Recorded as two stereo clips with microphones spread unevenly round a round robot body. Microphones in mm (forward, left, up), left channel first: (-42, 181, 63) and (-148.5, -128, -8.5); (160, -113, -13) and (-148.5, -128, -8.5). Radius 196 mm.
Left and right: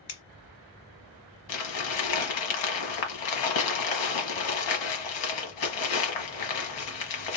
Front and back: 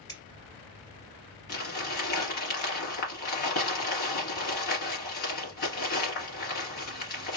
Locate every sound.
0.1 s scissors: 85° left, 2 m
1.5 s crumpling: 50° left, 1.3 m